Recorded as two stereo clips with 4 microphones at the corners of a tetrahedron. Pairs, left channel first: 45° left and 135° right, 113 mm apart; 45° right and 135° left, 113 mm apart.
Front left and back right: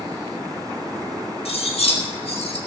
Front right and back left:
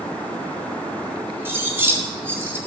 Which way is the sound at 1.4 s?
65° left.